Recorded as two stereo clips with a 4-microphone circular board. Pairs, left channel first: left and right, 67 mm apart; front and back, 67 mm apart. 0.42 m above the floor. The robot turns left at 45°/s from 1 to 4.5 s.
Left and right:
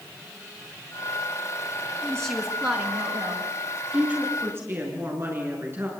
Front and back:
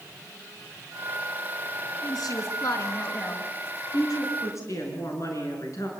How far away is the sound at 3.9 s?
About 6.5 m.